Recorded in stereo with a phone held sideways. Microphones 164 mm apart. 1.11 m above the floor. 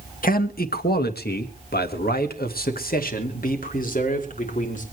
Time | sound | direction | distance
0.2 | a man speaking | 60° left (ahead or behind) | 1.4 m